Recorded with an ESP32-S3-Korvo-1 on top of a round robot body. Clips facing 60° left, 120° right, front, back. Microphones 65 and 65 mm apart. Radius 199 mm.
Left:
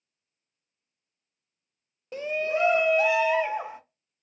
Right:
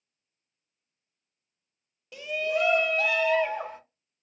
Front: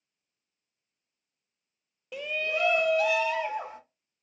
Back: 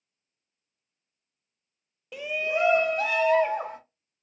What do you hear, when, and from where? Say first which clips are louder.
2.1 s a shout: left 1 dB, back 3 dB; 90° left, 0.5 m; by 3.8 s 135° left, 1.1 m